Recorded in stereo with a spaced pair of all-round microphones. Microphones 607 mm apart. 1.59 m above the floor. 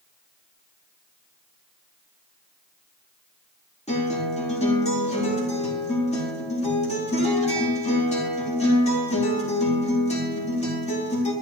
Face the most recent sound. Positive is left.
turn(degrees=10)  # may be behind; listen again after turning